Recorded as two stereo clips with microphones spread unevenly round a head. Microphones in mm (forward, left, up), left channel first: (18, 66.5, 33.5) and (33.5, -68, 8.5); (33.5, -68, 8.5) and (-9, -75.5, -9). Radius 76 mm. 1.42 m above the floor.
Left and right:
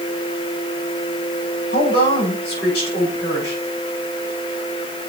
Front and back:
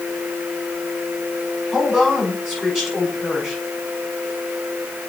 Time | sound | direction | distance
1.7 | a woman speaking | 95° left | 6 m